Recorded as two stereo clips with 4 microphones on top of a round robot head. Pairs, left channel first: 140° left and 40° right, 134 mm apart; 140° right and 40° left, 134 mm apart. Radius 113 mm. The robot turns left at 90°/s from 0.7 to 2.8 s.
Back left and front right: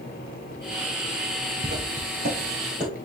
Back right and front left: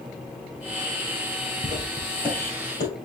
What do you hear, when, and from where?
1.6 s footsteps: 5° right, 2.5 m; by 2.9 s 125° right, 3 m